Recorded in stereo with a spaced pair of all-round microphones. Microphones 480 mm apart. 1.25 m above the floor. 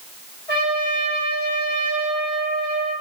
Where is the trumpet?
55° left (ahead or behind), 1.4 m.